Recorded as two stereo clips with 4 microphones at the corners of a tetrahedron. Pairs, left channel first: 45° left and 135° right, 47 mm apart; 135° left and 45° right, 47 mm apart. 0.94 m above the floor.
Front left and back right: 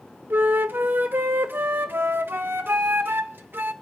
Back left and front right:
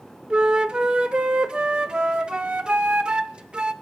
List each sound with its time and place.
0.3 s a flute: 110° right, 0.8 m